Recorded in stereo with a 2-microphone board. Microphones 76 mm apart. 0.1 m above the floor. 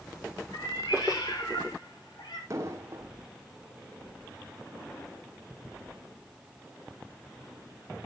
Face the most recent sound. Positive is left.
turn(degrees=-40)  # may be behind; listen again after turning